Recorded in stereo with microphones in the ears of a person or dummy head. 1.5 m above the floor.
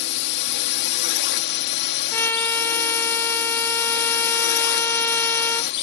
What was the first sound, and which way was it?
A drone, 65° left (ahead or behind).